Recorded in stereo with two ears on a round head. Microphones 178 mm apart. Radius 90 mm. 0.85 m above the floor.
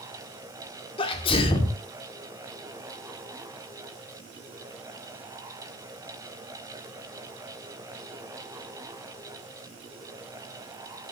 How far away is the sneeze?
About 2.5 m.